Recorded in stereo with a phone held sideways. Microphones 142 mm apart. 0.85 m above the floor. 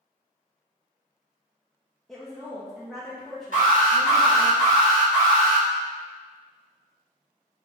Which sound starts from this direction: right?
An alarm, at 3.5 s.